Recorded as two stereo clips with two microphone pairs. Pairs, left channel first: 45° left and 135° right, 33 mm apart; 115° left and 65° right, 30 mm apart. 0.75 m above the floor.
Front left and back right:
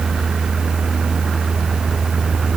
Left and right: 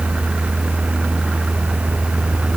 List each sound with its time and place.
Only background noise.